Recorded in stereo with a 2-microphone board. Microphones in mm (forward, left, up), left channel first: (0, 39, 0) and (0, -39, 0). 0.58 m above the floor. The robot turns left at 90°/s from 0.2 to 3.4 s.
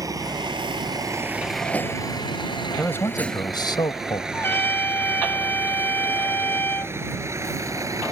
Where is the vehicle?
50° right (ahead or behind); by 8.1 s 45° right (ahead or behind).